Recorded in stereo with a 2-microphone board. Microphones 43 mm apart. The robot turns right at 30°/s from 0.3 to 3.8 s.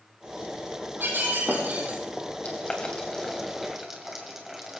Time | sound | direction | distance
1.0 | breaking glass | 55° right | 5 m
2.4 | boiling | 30° left (ahead or behind) | 3 m